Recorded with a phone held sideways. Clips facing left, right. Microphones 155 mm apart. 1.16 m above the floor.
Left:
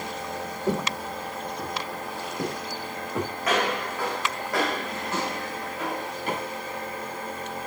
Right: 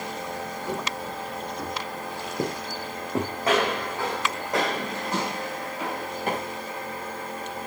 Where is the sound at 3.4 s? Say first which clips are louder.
Right 2 dB; 30° right (ahead or behind), 5 m; by 6.1 s 5° right (ahead or behind), 4.5 m.